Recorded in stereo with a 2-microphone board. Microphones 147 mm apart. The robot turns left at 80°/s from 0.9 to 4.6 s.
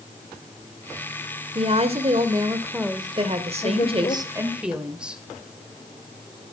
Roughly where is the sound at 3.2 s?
Ahead right.